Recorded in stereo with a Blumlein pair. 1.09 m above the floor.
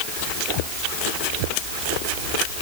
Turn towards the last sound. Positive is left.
No sound to turn to.